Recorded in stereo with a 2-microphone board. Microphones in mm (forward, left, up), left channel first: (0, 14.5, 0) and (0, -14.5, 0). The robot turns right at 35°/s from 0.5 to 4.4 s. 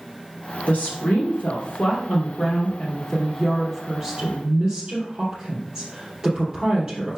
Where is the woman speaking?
65° left, 3 m; by 7.2 s 165° right, 3 m.